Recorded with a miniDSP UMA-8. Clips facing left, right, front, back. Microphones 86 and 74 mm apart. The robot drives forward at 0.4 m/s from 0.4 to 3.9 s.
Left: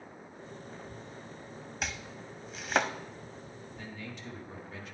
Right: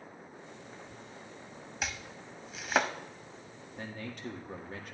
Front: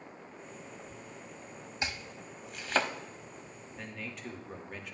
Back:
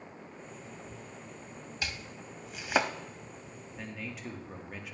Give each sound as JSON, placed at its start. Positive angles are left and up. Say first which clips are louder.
{"t": 1.8, "sound": "chopping", "louder": "even, front 2 dB", "azimuth_deg": 0, "distance_m": 0.6}
{"t": 3.8, "sound": "a man speaking", "louder": "right 4 dB, back 1 dB", "azimuth_deg": -90, "distance_m": 1.3}